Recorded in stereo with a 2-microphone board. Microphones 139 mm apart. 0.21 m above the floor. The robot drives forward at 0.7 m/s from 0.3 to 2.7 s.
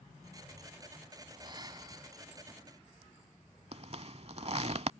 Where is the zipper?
50° right (ahead or behind).